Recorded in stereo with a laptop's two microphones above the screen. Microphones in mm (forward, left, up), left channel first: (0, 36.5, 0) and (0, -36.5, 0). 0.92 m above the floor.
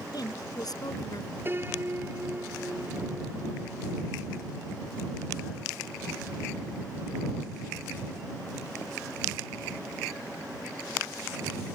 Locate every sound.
0.1 s a woman speaking: 65° left (ahead or behind)
1.4 s a piano: 30° right (ahead or behind)